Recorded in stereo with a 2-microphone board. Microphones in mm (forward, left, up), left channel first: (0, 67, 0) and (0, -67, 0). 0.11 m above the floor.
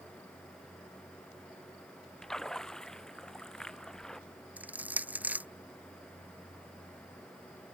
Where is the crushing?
10° right (ahead or behind).